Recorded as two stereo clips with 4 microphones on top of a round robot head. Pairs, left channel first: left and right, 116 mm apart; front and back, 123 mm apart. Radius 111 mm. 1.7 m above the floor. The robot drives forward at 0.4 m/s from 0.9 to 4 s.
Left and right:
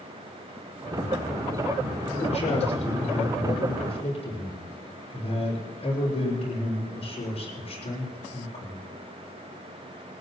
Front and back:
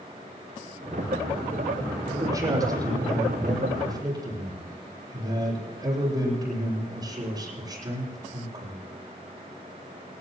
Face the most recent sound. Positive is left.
turn(degrees=120)